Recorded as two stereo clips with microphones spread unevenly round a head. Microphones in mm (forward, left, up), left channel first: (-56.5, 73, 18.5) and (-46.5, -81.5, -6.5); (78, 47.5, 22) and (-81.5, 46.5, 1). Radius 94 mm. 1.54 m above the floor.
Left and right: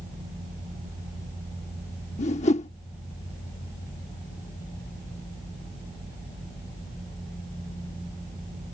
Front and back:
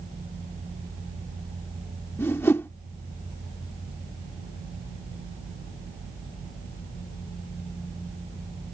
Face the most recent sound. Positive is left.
turn(degrees=65)